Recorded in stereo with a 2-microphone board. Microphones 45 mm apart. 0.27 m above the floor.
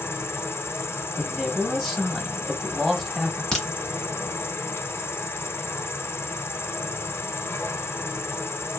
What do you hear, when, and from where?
0.0 s an insect: 75° left (ahead or behind), 0.9 m
1.2 s a man speaking: 5° left (ahead or behind), 1.1 m
3.5 s a crack: 10° left (ahead or behind), 1.1 m